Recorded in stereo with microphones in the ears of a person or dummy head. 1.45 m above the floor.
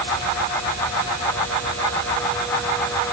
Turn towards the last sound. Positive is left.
No sound to turn to.